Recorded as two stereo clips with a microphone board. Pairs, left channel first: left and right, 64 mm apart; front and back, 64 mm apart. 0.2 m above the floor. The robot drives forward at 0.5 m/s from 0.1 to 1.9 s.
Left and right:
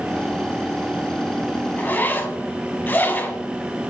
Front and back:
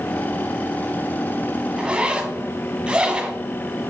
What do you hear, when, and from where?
1.8 s a zipper: 115° left, 1.0 m; by 3.4 s 120° left, 1.1 m